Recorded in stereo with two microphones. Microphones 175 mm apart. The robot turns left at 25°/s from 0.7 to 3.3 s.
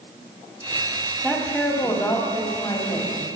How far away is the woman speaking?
About 1.5 m.